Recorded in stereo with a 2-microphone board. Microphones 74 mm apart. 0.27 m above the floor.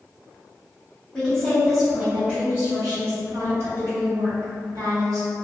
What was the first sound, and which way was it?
A woman speaking, 15° left (ahead or behind).